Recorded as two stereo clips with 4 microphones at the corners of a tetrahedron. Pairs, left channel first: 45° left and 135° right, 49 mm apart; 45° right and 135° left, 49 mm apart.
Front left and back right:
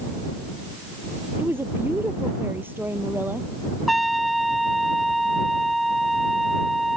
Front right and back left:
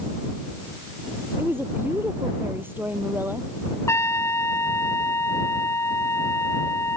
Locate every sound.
1.4 s a woman speaking: straight behind
3.9 s a trumpet: 45° right